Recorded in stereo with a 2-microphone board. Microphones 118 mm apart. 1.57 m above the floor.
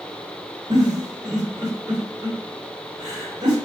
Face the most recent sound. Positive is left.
turn(degrees=-40)  # may be behind; listen again after turning